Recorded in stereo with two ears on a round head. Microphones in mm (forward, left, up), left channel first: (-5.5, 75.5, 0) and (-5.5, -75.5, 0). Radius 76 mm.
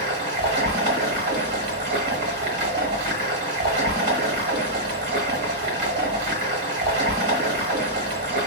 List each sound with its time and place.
0.0 s running water: 65° right (ahead or behind), 1.2 m